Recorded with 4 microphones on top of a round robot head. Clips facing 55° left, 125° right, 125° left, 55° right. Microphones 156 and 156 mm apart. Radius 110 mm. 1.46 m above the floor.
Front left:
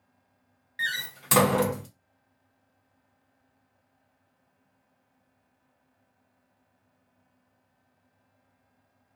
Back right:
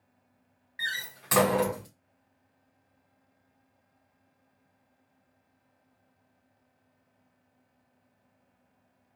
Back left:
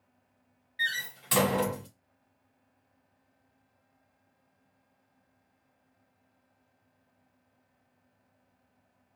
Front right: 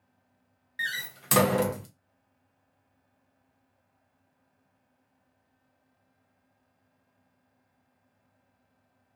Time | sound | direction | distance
0.8 | a door slam | 10° right | 0.7 m